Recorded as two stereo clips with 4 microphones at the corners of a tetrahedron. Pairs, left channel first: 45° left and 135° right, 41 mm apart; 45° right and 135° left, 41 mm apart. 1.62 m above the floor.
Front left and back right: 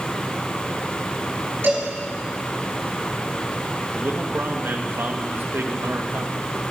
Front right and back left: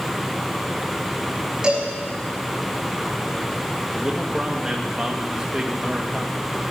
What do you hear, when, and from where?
1.6 s a cowbell: 160° right, 6.5 m
3.9 s a man speaking: 155° right, 2.0 m